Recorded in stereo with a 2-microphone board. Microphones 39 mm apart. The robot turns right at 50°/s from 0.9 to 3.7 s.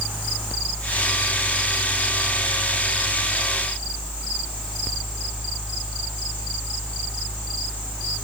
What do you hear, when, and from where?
Only background noise.